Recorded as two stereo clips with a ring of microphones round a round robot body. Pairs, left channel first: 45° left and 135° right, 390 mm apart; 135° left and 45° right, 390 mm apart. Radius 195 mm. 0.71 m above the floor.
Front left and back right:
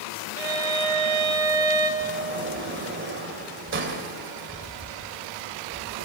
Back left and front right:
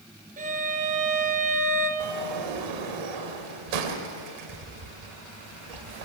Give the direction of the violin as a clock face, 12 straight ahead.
4 o'clock.